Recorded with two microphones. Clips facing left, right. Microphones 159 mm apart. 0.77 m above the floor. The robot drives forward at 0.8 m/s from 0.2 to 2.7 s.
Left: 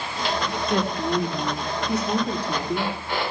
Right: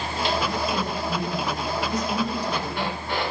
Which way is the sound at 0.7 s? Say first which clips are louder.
Left 4 dB; 70° left (ahead or behind).